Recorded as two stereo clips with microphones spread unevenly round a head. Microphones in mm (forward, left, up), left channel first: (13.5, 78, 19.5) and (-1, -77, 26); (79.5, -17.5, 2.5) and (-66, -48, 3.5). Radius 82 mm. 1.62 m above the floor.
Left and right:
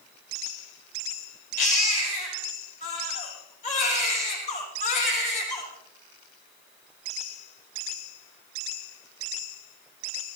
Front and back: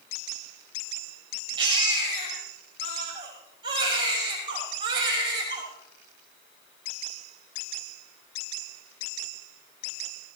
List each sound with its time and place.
1.6 s a baby crying: 130° left, 6 m